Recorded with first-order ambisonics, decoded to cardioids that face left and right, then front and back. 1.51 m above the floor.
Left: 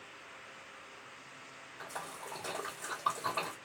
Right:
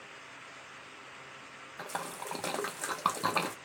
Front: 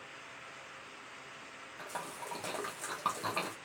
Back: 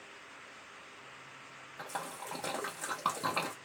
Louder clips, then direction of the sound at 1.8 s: Right 5 dB, back 2 dB; 100° right.